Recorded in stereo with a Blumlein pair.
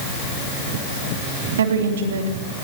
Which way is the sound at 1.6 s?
65° right.